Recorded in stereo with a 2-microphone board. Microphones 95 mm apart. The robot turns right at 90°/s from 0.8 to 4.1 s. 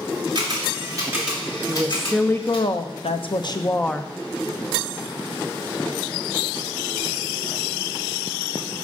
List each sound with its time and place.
0.3 s a camera shutter: 50° right (ahead or behind), 3 m; by 2.7 s 65° left (ahead or behind), 3 m
1.7 s a woman speaking: 35° right, 0.7 m; by 4.1 s straight behind, 0.7 m